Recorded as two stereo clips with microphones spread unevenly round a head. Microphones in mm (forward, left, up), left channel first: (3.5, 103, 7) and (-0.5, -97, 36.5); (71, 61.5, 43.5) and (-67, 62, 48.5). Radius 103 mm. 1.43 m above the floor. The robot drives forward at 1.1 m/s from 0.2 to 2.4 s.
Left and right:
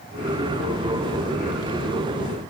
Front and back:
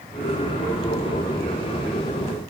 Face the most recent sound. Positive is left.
No sound to turn to.